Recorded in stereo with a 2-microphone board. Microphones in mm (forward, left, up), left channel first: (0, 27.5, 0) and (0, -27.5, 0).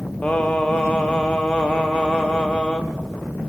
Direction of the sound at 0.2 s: 20° left (ahead or behind).